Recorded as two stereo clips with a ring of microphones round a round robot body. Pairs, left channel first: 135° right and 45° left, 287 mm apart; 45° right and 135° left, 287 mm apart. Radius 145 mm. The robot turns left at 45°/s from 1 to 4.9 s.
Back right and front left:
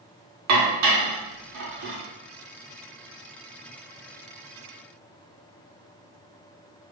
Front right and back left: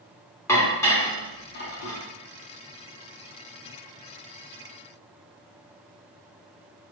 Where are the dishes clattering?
35° left, 1.2 m; by 2.0 s 10° right, 1.2 m.